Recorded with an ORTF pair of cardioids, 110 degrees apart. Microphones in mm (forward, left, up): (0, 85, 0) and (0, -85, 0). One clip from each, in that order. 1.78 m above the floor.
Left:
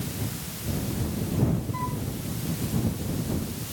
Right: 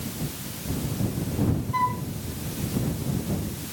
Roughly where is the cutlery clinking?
No cutlery clinking in this recording.